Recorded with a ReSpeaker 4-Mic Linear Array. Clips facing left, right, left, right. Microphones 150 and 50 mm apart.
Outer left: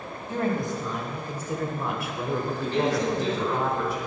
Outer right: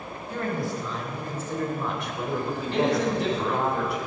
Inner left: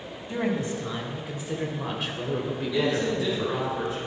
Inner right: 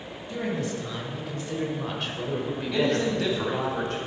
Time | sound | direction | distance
0.3 | a woman speaking | 25° left (ahead or behind) | 3 m
2.7 | a man speaking | 70° right (ahead or behind) | 3 m